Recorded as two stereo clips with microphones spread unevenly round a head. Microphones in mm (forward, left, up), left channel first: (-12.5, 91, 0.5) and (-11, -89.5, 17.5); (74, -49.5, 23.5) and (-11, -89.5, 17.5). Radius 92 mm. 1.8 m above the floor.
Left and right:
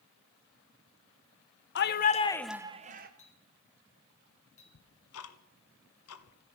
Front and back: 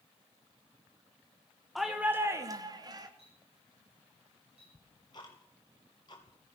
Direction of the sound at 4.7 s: 95° left.